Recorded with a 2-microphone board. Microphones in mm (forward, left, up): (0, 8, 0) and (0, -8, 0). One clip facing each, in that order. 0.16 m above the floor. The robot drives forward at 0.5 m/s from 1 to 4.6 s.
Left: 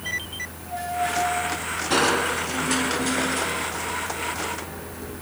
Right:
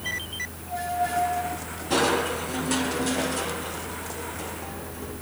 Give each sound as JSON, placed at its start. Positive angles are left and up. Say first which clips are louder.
{"t": 1.9, "sound": "crushing", "louder": "left 2 dB", "side_deg": 25, "distance_m": 1.8}